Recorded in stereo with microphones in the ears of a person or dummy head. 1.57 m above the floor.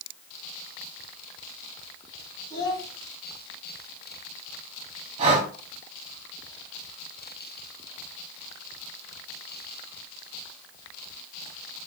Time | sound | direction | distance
2.5 | a child speaking | 25° left (ahead or behind) | 1.4 m
5.2 | breathing | 30° right (ahead or behind) | 0.8 m